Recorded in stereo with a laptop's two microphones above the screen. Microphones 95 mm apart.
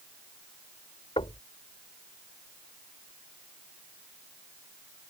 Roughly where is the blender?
No blender in this recording.